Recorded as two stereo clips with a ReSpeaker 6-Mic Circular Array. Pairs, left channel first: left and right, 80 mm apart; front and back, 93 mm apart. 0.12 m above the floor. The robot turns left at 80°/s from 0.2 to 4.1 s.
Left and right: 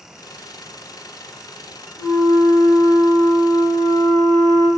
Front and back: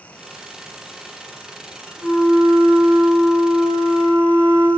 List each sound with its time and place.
2.0 s a flute: 95° right, 1.5 m; by 4.7 s 95° left, 1.5 m